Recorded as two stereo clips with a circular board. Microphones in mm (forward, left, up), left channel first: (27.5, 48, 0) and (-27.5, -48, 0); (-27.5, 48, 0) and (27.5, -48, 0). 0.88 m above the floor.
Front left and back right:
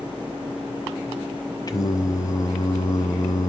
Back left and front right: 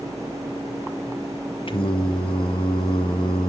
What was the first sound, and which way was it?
Singing, 110° left.